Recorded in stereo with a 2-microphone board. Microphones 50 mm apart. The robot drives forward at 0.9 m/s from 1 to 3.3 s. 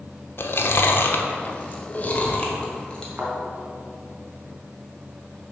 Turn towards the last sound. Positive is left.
turn(degrees=-40)  # may be behind; listen again after turning